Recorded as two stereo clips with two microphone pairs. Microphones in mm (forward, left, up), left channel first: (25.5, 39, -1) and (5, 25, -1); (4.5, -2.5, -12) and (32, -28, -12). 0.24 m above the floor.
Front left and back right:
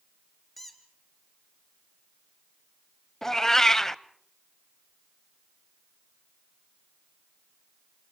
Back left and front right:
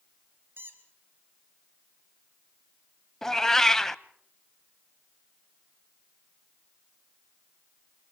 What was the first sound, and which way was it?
A squeak, 50° right.